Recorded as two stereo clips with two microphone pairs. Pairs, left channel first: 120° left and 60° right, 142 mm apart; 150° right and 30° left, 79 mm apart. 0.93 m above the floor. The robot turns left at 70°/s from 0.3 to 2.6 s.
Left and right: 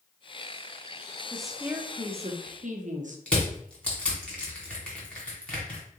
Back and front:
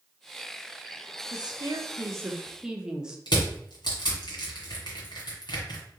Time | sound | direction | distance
1.3 | a woman speaking | 40° left | 0.8 m
3.3 | crushing | 160° right | 1.7 m